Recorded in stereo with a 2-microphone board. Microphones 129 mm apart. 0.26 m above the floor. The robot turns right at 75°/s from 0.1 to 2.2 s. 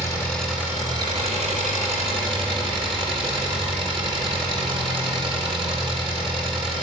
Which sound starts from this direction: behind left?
An engine running, at 0.0 s.